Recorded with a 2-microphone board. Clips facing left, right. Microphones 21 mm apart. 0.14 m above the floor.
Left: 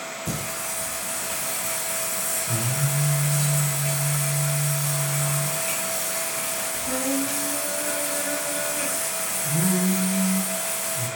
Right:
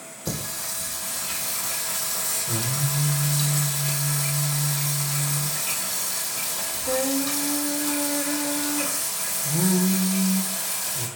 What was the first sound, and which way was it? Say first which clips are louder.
Singing: right 2 dB; 65° right (ahead or behind).